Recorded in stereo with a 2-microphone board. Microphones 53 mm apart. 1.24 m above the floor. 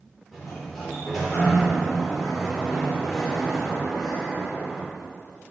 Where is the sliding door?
5° right (ahead or behind), 3 m.